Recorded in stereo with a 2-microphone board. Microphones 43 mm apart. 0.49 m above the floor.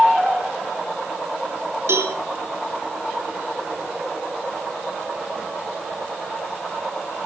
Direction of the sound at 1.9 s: 65° right (ahead or behind).